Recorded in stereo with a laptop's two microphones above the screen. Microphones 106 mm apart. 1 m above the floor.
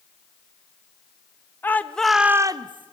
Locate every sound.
1.6 s a shout: 20° left (ahead or behind), 1.3 m; by 2.9 s 50° right (ahead or behind), 0.9 m